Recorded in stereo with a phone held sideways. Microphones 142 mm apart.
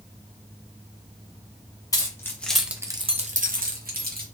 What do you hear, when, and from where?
1.9 s keys jangling: 25° left (ahead or behind), 1.0 m; by 4.2 s 80° right, 1.1 m